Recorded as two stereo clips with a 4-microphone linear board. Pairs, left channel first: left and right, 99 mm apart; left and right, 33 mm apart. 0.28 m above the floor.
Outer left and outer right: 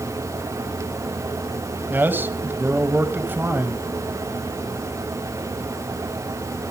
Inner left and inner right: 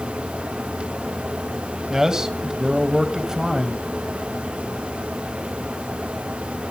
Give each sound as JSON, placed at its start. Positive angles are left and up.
{"t": 1.9, "sound": "a man speaking", "side_deg": -20, "distance_m": 1.8}